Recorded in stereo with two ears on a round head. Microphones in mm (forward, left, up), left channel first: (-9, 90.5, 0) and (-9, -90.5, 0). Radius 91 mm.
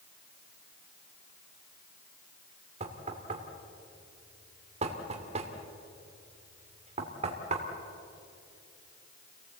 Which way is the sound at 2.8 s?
35° right (ahead or behind).